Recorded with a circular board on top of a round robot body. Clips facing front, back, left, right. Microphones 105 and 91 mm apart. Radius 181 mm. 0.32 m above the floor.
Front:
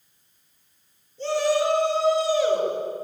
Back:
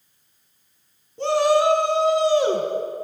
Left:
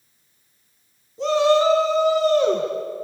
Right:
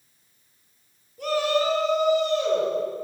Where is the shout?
160° left, 4.5 m; by 2.7 s 140° left, 4.5 m.